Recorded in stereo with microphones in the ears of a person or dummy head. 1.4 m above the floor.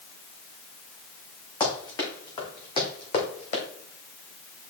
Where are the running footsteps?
15° left (ahead or behind), 4.5 m; by 3.6 s 40° left (ahead or behind), 3.5 m.